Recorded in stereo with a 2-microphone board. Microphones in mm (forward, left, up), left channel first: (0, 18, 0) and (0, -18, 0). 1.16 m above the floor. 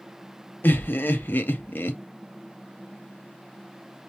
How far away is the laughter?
About 0.8 m.